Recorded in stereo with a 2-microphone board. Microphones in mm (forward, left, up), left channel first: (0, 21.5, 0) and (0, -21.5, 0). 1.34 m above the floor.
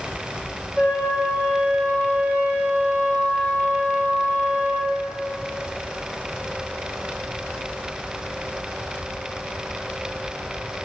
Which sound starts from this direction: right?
A flute, at 0.8 s.